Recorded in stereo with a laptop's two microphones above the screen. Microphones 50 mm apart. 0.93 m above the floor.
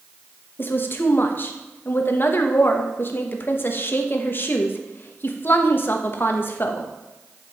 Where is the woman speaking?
45° left (ahead or behind), 0.9 m.